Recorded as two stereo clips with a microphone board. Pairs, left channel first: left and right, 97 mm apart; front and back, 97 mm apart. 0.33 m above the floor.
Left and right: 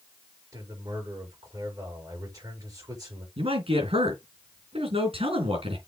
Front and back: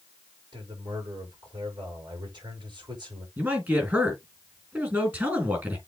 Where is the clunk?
No clunk in this recording.